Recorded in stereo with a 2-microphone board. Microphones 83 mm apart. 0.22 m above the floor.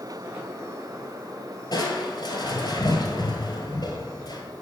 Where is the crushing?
60° left (ahead or behind), 1.2 m.